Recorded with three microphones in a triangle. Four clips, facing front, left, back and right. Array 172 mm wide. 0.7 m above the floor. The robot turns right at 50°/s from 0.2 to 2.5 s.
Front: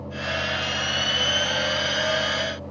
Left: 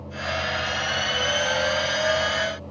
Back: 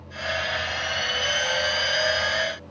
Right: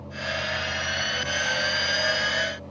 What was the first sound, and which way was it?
Only background noise.